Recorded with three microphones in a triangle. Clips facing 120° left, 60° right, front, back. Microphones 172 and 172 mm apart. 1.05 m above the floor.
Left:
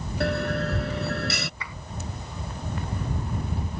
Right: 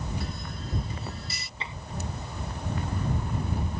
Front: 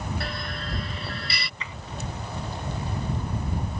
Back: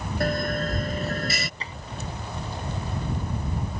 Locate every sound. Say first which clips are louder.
0.2 s a bell: left 12 dB, back 9 dB; 135° left
1.6 s tapping: even, back 1 dB; 125° right